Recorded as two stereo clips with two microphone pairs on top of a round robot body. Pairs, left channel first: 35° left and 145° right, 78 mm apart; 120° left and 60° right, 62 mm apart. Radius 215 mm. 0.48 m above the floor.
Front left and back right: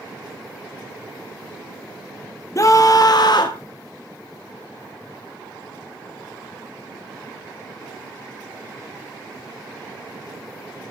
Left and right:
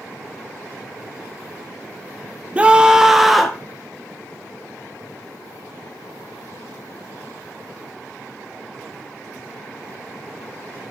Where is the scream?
5° right, 1.3 m; by 3.6 s 35° left, 1.7 m.